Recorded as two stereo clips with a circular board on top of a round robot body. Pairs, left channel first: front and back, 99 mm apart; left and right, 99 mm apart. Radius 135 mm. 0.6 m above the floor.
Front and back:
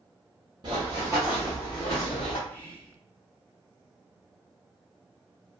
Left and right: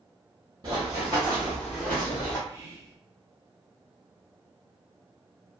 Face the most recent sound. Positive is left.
turn(degrees=-60)